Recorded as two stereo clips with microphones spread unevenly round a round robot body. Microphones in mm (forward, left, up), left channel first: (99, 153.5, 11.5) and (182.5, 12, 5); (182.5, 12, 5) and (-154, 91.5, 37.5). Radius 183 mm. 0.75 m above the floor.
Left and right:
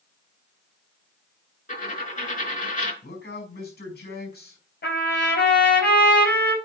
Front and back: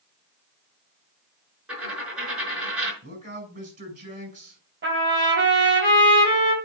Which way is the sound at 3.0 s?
100° left.